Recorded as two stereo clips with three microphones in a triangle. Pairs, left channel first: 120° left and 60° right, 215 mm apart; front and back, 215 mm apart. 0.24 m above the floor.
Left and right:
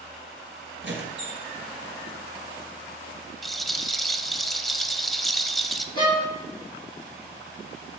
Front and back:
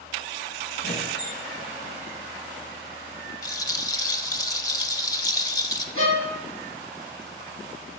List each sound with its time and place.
0.8 s a squeak: 35° right, 2 m
3.4 s a rattle: 30° left, 0.7 m
6.0 s a violin: 170° right, 4.5 m